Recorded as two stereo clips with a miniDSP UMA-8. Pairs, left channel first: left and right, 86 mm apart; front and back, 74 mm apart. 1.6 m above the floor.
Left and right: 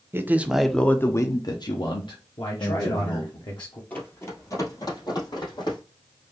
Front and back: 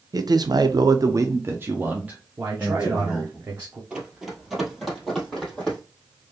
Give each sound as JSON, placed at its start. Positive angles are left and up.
{"t": 0.1, "sound": "a man speaking", "azimuth_deg": -150, "distance_m": 0.7}
{"t": 2.4, "sound": "a man speaking", "azimuth_deg": 125, "distance_m": 1.2}
{"t": 3.9, "sound": "running footsteps", "azimuth_deg": 120, "distance_m": 1.7}